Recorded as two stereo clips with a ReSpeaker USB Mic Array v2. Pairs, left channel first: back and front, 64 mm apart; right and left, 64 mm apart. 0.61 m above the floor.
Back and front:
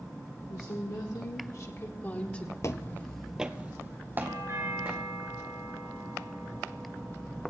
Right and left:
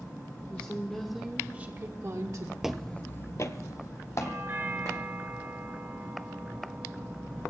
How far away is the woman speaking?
About 1.6 m.